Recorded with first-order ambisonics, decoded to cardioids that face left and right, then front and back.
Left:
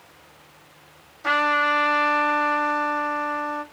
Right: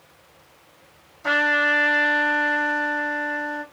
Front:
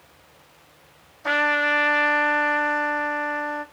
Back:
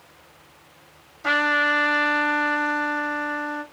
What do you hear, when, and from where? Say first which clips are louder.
1.2 s a trumpet: right 1 dB, back 1 dB; 150° left, 2.0 m